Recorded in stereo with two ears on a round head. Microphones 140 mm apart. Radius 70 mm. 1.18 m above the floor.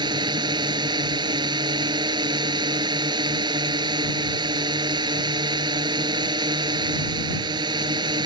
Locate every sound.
0.0 s a drone: 30° right (ahead or behind)